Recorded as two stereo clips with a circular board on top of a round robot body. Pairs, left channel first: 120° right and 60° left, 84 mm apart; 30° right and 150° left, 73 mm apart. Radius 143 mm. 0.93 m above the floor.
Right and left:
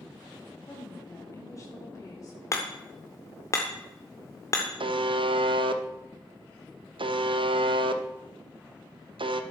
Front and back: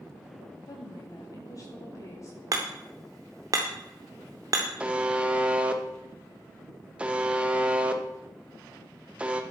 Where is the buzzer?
75° left, 0.8 m.